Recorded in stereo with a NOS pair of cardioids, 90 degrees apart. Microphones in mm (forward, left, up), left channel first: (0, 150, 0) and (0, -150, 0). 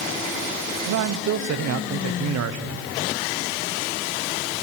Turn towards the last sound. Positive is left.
turn(degrees=-60)